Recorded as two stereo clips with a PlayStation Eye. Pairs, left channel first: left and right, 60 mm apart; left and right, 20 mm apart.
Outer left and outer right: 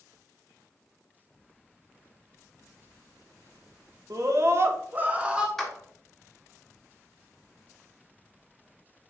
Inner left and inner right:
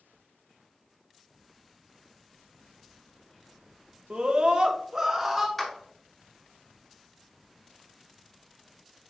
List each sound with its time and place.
4.1 s a scream: 60° right (ahead or behind), 1.2 m; by 5.5 s 15° right (ahead or behind), 1.6 m
5.6 s a clap: 5° left (ahead or behind), 1.7 m